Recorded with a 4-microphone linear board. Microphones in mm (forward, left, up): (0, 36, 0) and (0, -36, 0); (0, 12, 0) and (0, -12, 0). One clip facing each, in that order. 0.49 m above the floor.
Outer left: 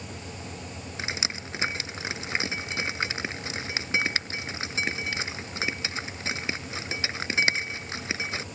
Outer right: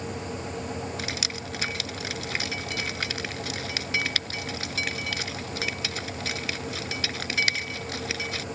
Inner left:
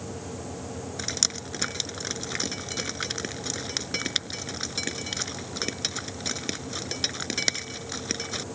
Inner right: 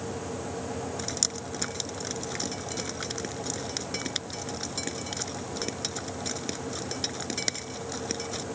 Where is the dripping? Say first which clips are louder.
Outer right 1 dB, inner left 7 dB; 25° left (ahead or behind).